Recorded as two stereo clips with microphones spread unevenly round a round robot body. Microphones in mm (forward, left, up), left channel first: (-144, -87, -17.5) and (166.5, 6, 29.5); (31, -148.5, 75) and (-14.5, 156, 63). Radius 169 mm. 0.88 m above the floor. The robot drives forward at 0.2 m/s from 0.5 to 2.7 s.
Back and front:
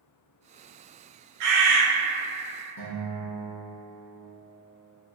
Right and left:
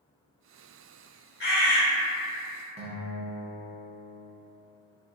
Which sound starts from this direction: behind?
A guitar, at 2.8 s.